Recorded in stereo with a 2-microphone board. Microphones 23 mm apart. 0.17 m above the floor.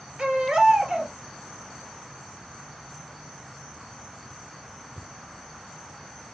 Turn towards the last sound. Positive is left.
turn(degrees=-35)  # may be behind; listen again after turning